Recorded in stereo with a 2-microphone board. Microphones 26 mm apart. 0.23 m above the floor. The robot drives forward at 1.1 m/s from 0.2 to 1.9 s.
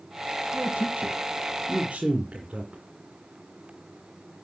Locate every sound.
0.5 s a man speaking: 55° right (ahead or behind), 1.9 m; by 2.8 s 45° right (ahead or behind), 2 m